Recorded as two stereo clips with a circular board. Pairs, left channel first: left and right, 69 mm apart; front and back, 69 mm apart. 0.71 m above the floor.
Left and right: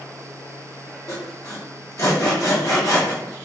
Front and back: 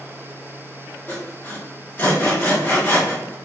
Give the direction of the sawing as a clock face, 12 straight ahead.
10 o'clock.